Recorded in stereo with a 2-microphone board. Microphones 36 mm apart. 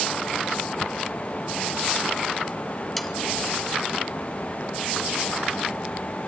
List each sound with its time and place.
3.0 s sawing: 5° left (ahead or behind), 1.6 m